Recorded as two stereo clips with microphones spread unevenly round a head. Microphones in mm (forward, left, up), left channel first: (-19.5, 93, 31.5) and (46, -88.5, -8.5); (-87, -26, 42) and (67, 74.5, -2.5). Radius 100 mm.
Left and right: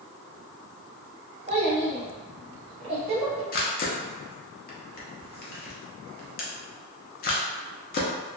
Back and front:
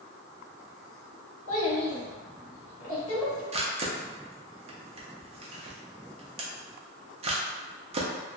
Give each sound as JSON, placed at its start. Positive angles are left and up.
{"t": 1.5, "sound": "a child speaking", "azimuth_deg": -135, "distance_m": 1.1}
{"t": 3.5, "sound": "a camera shutter", "azimuth_deg": 95, "distance_m": 0.6}